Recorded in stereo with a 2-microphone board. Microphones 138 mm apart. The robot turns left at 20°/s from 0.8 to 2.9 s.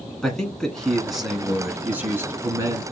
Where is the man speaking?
5° left, 1.6 m; by 2.8 s 35° right, 1.6 m.